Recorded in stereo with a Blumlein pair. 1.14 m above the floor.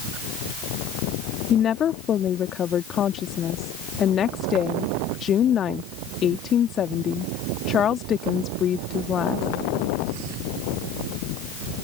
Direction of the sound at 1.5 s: 25° left.